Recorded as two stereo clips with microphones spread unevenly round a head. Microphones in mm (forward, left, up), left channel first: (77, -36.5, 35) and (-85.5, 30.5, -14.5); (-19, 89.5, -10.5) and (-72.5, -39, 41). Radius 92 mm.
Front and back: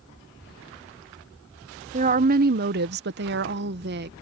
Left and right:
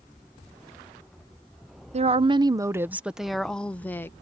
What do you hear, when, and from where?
1.9 s a woman speaking: 160° right; by 4.1 s 135° left